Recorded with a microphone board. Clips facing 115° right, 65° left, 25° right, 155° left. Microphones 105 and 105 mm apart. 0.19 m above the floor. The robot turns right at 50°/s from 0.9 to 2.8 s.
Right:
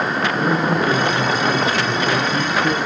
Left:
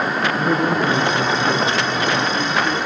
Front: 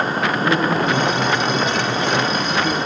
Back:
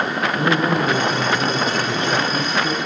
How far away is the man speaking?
About 5 m.